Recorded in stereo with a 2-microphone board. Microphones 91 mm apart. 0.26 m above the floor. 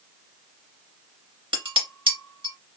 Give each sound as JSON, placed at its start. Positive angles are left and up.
{"t": 1.5, "sound": "dishes clattering", "side_deg": -70, "distance_m": 1.8}